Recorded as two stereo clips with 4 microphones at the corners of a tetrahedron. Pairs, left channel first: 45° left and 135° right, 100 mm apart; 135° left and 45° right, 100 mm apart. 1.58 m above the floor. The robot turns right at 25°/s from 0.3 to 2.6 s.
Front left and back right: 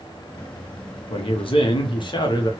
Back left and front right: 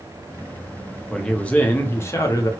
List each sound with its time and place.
1.1 s a man speaking: 50° left, 0.7 m; by 2.5 s 85° left, 0.7 m